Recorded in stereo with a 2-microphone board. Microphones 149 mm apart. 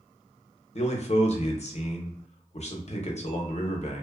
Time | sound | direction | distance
0.8 | a man speaking | 50° left (ahead or behind) | 0.6 m